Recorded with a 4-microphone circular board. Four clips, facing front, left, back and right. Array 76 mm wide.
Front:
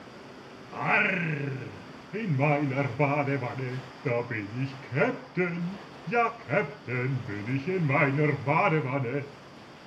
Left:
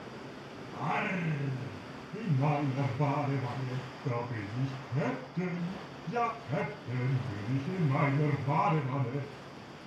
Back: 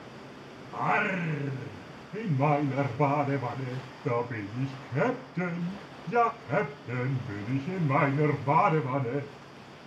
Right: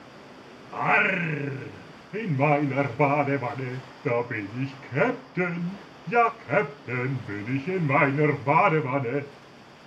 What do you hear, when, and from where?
0.7 s singing: 65° right, 1.5 m